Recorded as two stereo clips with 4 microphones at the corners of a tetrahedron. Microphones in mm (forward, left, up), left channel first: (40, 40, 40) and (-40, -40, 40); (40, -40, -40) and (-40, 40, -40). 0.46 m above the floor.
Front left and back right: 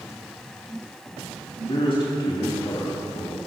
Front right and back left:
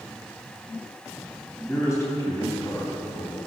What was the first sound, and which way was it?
A man speaking, 15° left.